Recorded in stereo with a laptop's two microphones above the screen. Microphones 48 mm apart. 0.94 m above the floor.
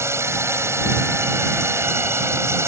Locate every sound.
0.0 s a drone: 70° right (ahead or behind)